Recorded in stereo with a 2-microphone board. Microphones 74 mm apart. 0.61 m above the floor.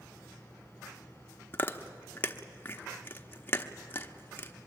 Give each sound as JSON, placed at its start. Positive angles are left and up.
{"t": 1.5, "sound": "chewing", "side_deg": 30, "distance_m": 1.0}